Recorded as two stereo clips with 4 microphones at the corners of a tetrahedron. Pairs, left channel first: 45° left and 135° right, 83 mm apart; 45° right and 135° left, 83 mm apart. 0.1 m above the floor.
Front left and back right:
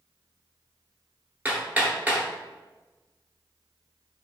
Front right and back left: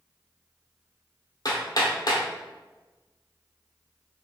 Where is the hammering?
65° right, 0.9 m.